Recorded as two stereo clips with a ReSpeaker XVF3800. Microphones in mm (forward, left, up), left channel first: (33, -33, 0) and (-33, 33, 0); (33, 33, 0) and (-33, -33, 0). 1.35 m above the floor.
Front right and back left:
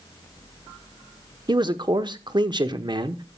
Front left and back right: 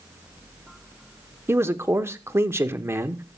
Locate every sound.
1.5 s a man speaking: 165° left, 1.0 m